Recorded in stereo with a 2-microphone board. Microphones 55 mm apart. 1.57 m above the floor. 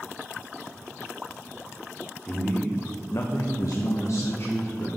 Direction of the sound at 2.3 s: 15° left (ahead or behind).